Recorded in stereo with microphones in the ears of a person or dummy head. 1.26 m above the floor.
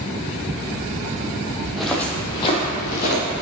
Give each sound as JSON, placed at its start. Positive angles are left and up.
{"t": 1.6, "sound": "footsteps", "side_deg": 0, "distance_m": 2.0}